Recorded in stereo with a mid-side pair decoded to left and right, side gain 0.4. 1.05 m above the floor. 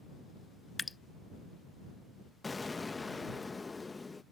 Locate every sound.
0.8 s dripping: 25° left
2.4 s an explosion: 25° left